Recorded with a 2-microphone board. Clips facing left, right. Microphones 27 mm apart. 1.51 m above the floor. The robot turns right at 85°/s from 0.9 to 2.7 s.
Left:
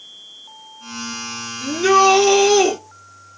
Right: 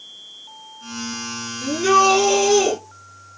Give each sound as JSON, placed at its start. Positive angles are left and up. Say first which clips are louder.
{"t": 1.6, "sound": "a shout", "louder": "left 2 dB", "azimuth_deg": -5, "distance_m": 5.0}